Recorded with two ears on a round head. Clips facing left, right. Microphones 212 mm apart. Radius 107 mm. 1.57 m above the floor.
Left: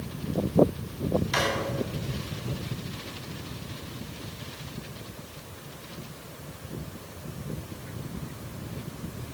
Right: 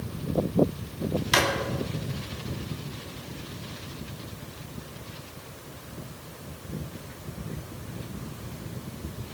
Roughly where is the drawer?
Right.